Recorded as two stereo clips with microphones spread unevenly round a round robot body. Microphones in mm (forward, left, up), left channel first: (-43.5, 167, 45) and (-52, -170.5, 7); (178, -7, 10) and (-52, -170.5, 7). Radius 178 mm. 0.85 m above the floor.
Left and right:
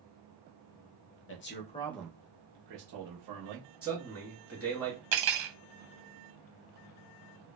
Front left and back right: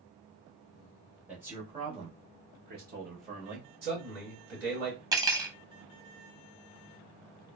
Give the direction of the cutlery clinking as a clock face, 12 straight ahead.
2 o'clock.